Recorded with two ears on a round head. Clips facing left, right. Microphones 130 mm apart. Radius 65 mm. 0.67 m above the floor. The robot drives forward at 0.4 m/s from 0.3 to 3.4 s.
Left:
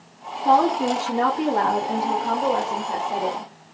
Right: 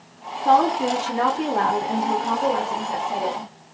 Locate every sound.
0.5 s a woman speaking: 10° left (ahead or behind), 0.9 m; by 3.5 s 5° left (ahead or behind), 1.2 m